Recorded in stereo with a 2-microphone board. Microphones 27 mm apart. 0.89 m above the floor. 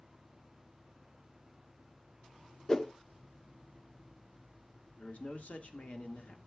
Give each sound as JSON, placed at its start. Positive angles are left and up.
{"t": 2.7, "sound": "a whoosh", "side_deg": 25, "distance_m": 0.6}
{"t": 5.0, "sound": "a man speaking", "side_deg": 50, "distance_m": 1.7}